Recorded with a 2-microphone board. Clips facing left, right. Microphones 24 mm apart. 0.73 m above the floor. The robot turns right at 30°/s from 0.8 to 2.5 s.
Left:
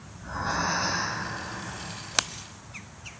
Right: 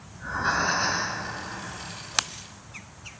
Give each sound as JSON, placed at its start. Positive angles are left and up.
{"t": 0.1, "sound": "breathing", "side_deg": -60, "distance_m": 2.5}